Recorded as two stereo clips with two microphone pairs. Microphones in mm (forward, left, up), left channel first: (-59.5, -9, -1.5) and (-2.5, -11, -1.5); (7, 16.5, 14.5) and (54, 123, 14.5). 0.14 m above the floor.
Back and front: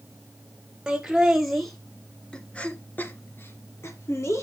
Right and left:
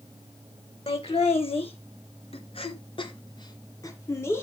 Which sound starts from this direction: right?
Laughter, at 0.9 s.